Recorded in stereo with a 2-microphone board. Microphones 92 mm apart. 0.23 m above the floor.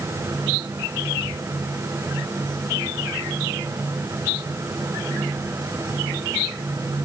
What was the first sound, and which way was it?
Only background noise.